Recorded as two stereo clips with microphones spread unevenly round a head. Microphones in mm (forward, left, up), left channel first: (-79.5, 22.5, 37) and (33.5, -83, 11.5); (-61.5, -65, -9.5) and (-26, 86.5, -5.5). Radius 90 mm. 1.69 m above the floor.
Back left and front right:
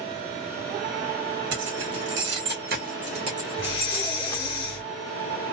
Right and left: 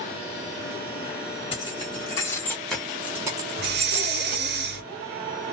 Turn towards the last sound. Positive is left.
turn(degrees=80)